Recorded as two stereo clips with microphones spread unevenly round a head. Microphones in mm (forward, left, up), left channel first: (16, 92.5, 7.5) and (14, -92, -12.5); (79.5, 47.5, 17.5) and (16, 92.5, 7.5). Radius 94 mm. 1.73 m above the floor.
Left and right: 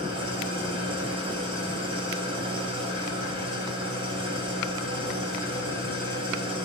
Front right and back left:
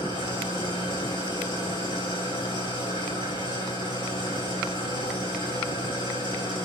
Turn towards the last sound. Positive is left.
turn(degrees=-25)